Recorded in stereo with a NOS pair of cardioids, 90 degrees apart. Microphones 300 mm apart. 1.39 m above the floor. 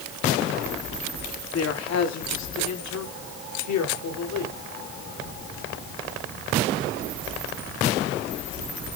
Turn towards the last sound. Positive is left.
turn(degrees=75)